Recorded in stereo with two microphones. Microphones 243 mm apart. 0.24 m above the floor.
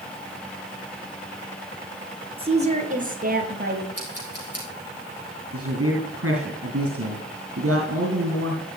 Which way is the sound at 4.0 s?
75° left (ahead or behind).